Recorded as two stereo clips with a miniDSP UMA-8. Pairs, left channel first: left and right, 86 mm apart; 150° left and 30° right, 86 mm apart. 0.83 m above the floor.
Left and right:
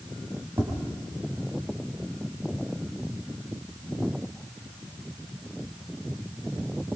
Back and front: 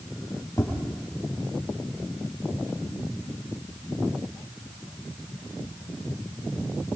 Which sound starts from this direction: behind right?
Tapping, at 0.6 s.